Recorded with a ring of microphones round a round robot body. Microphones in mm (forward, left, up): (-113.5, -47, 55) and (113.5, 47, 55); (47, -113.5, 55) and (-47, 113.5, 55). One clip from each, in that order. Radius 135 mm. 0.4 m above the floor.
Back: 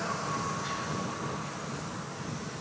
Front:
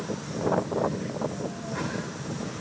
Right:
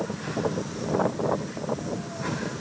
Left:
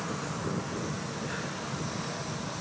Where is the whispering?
I don't hear whispering.